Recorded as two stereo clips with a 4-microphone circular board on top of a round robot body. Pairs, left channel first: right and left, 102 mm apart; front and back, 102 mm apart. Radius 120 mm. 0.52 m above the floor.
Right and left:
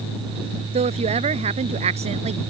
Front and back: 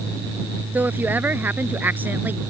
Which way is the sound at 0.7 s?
105° left.